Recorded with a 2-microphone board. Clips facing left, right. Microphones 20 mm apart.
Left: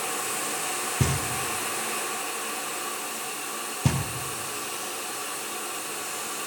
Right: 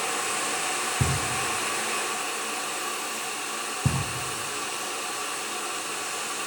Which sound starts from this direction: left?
Knocking, at 1.0 s.